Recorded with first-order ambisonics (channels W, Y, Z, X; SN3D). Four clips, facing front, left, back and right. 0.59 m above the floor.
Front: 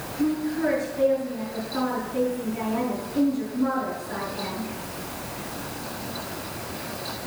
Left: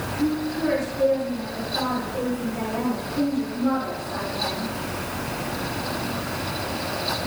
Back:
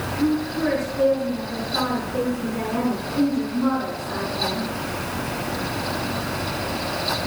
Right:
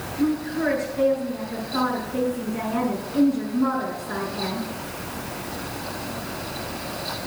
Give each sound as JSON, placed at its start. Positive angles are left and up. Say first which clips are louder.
{"t": 0.2, "sound": "a woman speaking", "louder": "right 2 dB, back 2 dB", "azimuth_deg": -115, "distance_m": 6.0}